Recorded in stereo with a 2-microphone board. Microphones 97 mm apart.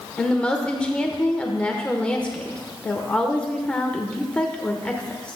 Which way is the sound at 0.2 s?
10° left (ahead or behind).